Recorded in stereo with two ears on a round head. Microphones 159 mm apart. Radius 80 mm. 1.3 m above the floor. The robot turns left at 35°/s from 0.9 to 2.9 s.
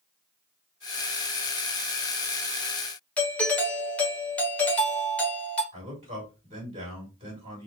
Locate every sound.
3.2 s a doorbell: 5° left (ahead or behind), 1.0 m
5.7 s a man speaking: 30° right (ahead or behind), 2.5 m